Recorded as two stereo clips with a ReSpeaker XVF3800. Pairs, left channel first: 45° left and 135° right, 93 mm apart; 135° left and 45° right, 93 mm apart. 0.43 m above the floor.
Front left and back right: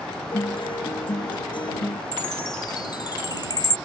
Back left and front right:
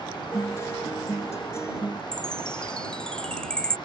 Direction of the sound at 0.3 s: 75° left.